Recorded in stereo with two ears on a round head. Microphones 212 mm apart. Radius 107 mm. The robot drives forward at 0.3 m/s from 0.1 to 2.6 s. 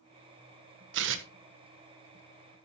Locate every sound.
0.9 s tearing paper: 50° right (ahead or behind), 1.1 m; by 1.3 s 55° right (ahead or behind), 1.0 m